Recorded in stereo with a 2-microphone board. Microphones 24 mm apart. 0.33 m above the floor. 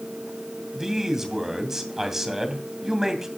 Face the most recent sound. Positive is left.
turn(degrees=-15)  # may be behind; listen again after turning